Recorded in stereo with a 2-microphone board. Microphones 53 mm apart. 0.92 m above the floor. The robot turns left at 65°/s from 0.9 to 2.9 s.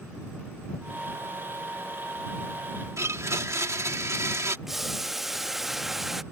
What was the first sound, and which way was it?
A blender, 65° right (ahead or behind).